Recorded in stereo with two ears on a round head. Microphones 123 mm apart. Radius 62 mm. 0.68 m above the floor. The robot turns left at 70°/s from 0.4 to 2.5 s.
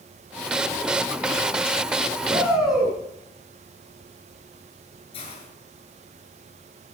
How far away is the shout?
About 8 m.